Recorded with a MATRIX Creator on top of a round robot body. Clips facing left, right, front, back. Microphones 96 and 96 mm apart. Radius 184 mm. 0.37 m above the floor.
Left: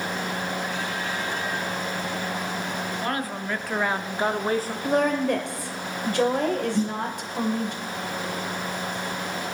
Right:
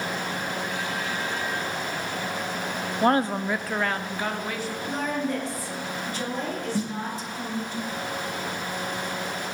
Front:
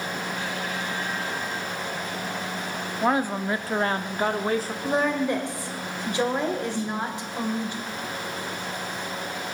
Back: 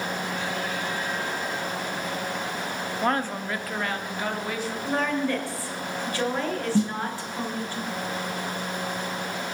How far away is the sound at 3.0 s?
About 0.9 m.